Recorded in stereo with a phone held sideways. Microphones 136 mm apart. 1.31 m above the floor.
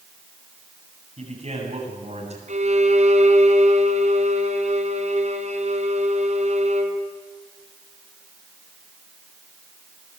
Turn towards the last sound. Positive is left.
turn(degrees=-60)  # may be behind; listen again after turning